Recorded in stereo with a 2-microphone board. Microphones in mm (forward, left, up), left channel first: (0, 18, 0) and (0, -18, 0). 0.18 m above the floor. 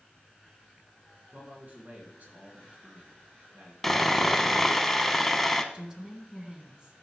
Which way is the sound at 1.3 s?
50° right (ahead or behind).